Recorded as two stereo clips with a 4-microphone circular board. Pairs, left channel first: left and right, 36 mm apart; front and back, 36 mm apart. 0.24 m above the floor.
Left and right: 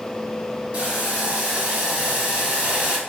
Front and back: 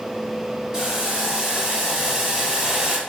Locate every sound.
0.7 s boiling: 115° right, 0.7 m